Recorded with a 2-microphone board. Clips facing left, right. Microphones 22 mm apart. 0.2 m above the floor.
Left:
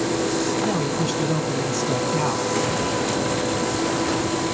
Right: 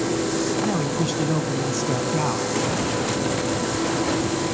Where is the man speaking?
Centre (ahead or behind), 1.5 m.